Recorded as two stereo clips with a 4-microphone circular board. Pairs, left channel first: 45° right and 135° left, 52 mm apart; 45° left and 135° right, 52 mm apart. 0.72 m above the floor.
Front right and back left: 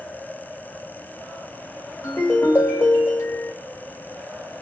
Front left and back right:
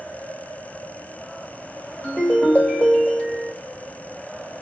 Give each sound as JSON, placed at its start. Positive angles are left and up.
{"t": 2.0, "sound": "a ringtone", "azimuth_deg": -20, "distance_m": 1.4}